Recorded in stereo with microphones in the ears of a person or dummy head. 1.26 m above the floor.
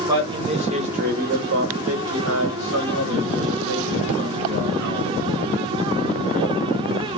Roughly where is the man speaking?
Centre.